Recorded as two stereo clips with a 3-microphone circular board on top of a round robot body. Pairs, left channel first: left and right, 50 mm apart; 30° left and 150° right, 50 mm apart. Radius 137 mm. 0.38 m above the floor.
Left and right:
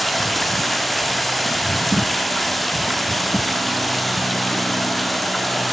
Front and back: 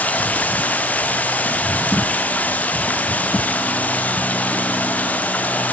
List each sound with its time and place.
0.0 s running water: 5° left, 1.1 m